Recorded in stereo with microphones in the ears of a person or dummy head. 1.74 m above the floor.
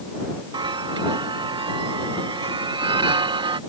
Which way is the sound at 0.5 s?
30° right (ahead or behind).